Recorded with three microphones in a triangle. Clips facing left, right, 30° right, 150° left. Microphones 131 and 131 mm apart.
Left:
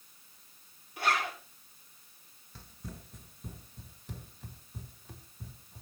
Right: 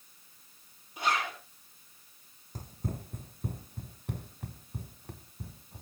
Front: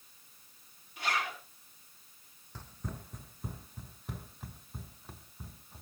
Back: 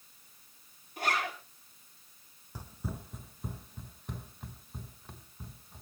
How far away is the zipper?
About 6.5 m.